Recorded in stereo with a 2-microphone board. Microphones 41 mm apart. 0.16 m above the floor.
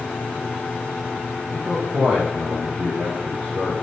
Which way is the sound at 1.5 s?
35° right (ahead or behind).